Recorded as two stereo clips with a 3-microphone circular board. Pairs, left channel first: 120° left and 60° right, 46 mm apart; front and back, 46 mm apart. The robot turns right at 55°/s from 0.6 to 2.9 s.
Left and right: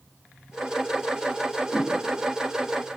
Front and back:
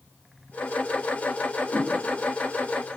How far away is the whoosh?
About 7.5 m.